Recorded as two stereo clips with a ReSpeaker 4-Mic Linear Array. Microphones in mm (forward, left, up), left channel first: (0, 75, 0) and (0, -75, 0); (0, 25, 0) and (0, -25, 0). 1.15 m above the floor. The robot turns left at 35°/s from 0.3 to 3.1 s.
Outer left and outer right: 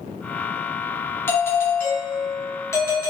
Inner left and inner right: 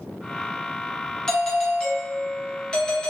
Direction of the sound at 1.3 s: 15° left (ahead or behind).